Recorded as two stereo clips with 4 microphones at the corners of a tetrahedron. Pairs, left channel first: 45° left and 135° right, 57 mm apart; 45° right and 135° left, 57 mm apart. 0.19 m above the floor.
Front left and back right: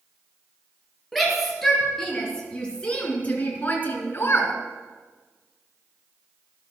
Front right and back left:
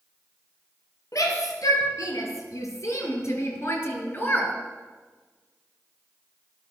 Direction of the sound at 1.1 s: 45° right.